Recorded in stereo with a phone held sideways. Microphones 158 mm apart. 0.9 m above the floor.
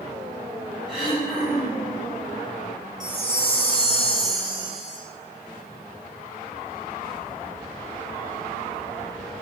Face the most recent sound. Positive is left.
turn(degrees=-25)  # may be behind; listen again after turning